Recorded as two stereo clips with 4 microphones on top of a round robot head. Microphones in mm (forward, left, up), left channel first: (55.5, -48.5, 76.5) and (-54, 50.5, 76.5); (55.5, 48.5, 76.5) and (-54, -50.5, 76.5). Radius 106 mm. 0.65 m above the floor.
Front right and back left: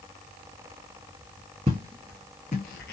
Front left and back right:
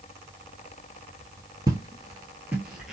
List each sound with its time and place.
1.7 s footsteps: 165° left, 0.7 m; by 2.9 s 50° right, 0.9 m